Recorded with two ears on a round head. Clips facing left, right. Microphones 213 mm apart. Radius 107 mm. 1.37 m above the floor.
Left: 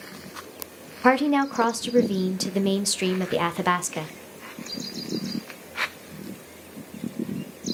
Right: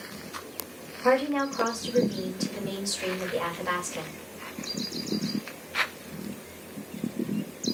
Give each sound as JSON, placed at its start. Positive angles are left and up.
{"t": 1.0, "sound": "a woman speaking", "side_deg": 70, "distance_m": 0.6}